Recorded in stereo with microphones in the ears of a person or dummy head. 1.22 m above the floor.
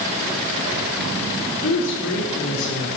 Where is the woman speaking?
60° left (ahead or behind), 3 m.